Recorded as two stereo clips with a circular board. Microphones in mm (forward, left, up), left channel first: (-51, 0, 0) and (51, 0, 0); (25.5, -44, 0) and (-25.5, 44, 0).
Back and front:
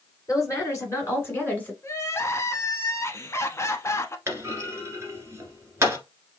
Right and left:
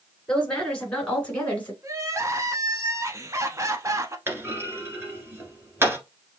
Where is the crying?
145° left, 0.6 m.